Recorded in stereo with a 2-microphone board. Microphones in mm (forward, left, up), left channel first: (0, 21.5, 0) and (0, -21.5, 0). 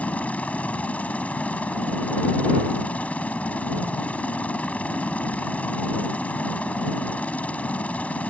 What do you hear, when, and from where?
0.0 s a helicopter: 30° left (ahead or behind)